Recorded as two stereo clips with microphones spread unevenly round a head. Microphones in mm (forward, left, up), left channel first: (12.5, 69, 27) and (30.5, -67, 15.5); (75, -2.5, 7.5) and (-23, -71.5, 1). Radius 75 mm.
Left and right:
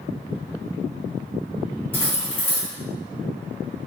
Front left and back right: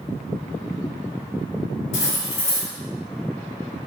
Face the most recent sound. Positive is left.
turn(degrees=25)